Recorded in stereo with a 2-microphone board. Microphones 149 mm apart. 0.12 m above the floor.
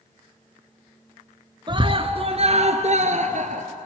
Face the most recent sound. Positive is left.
turn(degrees=-55)  # may be behind; listen again after turning